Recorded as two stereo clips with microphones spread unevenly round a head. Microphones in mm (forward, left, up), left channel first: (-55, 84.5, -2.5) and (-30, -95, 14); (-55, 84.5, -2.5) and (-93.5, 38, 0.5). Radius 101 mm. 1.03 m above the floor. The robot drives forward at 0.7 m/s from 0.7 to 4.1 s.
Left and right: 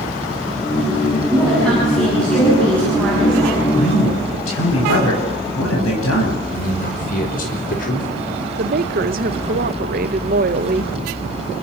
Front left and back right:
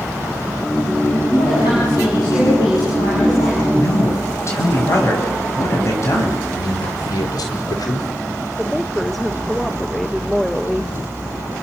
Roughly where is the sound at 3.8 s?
Left.